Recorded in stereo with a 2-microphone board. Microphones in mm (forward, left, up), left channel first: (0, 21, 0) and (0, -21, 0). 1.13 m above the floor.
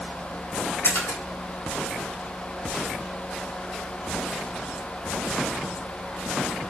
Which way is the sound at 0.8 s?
50° left (ahead or behind).